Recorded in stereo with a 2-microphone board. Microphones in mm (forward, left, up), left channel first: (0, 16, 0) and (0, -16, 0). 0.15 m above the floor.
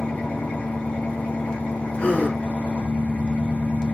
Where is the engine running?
60° left (ahead or behind), 2.5 m.